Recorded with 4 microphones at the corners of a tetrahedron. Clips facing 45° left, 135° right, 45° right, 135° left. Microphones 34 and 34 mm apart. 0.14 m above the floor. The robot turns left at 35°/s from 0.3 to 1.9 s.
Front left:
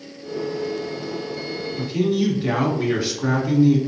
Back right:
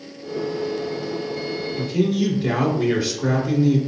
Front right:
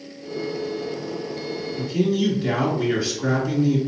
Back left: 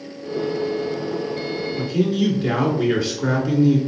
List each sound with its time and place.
1.8 s a man speaking: 110° left, 1.5 m